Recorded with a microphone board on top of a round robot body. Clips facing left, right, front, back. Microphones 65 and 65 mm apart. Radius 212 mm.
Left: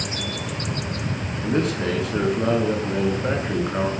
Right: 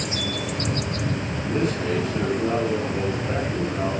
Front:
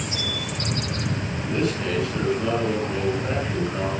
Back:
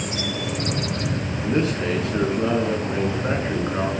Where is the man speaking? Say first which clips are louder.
Left 3 dB, back 3 dB; 120° left, 9.5 m.